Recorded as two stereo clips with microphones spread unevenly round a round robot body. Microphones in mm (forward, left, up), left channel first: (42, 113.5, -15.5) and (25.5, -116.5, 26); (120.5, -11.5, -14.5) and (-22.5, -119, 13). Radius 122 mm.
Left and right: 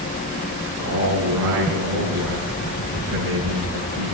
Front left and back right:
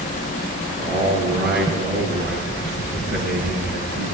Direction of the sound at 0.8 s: 115° right.